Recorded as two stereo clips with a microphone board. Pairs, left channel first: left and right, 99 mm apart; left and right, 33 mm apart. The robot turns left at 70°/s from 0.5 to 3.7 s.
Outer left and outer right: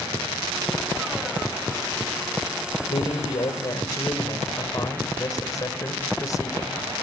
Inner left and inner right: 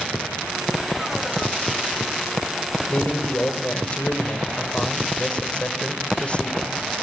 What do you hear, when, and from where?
2.9 s a man speaking: 95° left, 2.5 m; by 6.8 s 40° left, 2.5 m